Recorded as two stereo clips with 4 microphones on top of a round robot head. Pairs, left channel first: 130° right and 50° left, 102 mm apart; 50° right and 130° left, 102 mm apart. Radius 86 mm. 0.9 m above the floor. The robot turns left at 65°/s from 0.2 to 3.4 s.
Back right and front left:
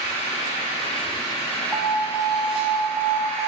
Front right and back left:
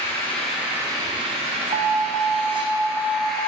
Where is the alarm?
130° left, 0.6 m; by 3.5 s 20° left, 0.6 m.